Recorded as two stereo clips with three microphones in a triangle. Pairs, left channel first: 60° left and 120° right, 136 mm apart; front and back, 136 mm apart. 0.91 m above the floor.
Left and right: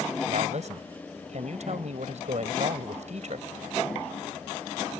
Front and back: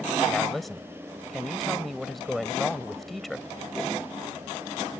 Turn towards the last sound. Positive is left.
turn(degrees=-90)